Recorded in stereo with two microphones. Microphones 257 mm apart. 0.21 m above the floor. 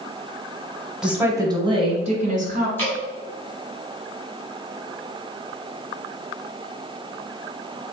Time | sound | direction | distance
1.0 | a woman speaking | 5° right (ahead or behind) | 1.1 m
2.8 | dripping | 10° left (ahead or behind) | 1.9 m